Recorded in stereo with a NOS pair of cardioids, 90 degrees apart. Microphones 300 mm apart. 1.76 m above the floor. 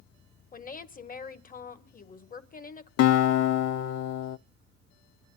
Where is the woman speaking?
30° left, 1.6 m.